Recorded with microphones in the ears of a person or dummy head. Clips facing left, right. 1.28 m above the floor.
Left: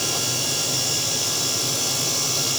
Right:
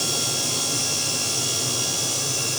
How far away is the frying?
No frying in this recording.